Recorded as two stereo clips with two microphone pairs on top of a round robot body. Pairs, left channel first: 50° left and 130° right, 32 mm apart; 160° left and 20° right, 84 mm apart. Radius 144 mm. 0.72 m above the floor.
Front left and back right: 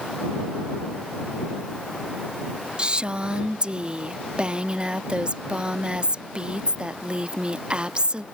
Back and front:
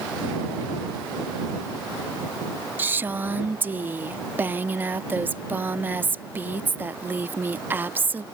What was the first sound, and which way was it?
A woman speaking, 80° right.